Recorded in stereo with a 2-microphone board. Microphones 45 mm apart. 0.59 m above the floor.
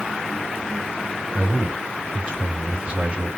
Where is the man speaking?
25° right (ahead or behind), 2.0 m.